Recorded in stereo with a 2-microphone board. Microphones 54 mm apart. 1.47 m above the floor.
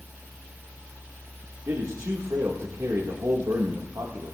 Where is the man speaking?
85° right, 2.0 m.